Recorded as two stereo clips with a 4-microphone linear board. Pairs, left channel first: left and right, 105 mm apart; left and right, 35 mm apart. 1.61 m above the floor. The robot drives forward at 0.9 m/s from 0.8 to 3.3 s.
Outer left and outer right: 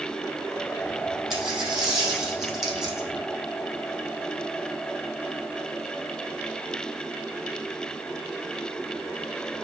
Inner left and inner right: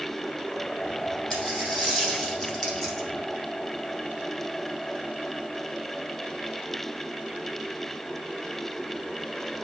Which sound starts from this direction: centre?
A dropped coin, at 1.3 s.